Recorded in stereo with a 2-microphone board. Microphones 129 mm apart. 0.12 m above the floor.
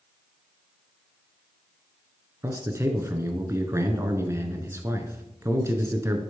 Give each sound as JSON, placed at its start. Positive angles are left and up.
{"t": 2.4, "sound": "a man speaking", "side_deg": -20, "distance_m": 1.2}